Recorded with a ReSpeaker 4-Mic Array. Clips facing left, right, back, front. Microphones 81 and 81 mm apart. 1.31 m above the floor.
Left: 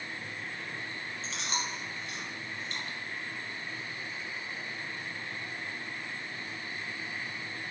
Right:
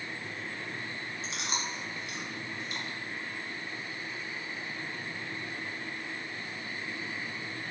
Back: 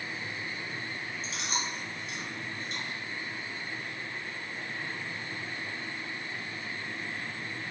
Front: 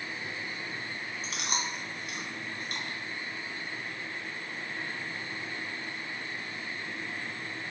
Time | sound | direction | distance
1.2 | chewing | 15° right | 0.8 m